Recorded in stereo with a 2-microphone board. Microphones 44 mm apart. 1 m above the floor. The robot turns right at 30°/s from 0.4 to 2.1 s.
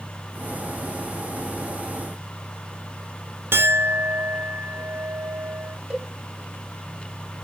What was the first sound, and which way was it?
A clink, 50° right (ahead or behind).